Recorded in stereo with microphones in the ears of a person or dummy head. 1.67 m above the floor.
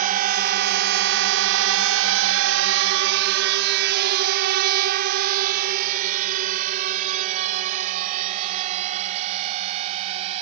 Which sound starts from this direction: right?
A drone, at 0.0 s.